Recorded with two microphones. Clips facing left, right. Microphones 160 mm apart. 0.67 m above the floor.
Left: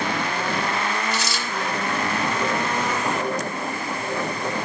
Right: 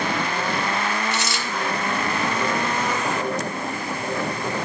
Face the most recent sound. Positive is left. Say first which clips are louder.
# even
turn(degrees=-70)  # may be behind; listen again after turning